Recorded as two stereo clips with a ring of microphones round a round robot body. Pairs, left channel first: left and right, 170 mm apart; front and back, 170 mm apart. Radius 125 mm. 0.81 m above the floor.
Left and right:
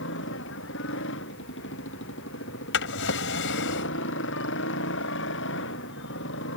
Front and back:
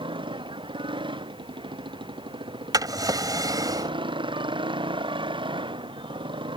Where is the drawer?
110° left.